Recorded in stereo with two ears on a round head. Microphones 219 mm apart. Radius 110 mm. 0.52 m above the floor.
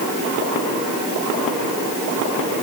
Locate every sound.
Only background noise.